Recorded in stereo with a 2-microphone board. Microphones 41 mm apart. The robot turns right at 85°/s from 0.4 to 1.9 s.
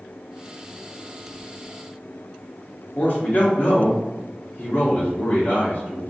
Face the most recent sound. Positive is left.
turn(degrees=45)  # may be behind; listen again after turning